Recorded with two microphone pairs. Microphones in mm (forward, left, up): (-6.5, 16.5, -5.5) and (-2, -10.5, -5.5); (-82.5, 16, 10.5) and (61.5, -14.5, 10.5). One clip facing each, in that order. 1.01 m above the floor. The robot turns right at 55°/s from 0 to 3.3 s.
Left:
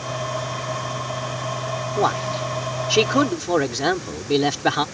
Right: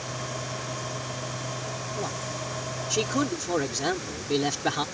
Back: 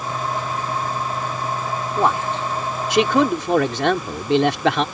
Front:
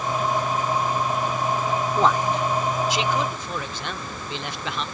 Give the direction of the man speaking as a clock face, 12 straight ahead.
9 o'clock.